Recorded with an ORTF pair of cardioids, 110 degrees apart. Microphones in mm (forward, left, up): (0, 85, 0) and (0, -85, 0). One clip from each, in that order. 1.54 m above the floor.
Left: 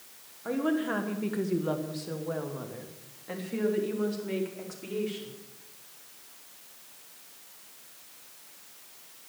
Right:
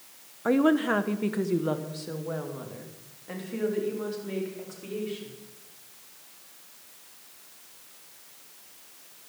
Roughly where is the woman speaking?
Ahead right.